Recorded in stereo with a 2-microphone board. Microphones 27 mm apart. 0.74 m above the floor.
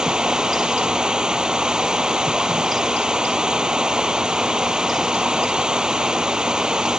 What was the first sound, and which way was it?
Running water, 30° right (ahead or behind).